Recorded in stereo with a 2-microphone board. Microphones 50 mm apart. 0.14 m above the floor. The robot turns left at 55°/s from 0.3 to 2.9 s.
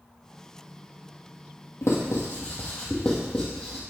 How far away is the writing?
About 2.5 m.